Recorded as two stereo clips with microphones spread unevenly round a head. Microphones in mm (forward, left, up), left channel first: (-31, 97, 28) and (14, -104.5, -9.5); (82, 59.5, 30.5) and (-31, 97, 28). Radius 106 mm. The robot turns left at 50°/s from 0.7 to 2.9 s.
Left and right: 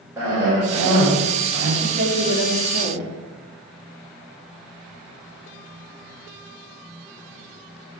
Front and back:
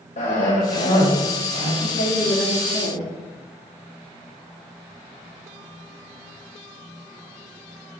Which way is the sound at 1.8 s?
20° right.